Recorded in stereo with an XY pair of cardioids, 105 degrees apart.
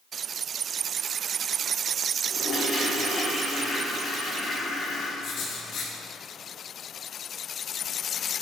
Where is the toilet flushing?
60° left, 1.3 m.